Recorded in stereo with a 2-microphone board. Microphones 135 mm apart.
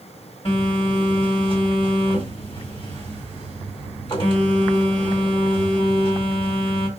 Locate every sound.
0.5 s a phone buzzing: 40° left (ahead or behind), 1.6 m